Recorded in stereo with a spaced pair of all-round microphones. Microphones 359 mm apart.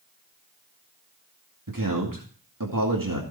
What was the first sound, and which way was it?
A man speaking, 65° right (ahead or behind).